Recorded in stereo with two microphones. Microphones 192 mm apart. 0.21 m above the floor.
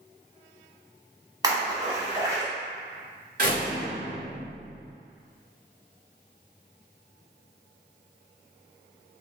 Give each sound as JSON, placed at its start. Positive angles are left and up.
{"t": 1.4, "sound": "a splash", "side_deg": -20, "distance_m": 1.2}
{"t": 3.4, "sound": "a door slam", "side_deg": -50, "distance_m": 1.7}